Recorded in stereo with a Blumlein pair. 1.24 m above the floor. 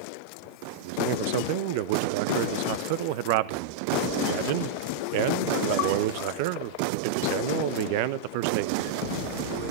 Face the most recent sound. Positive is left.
turn(degrees=-45)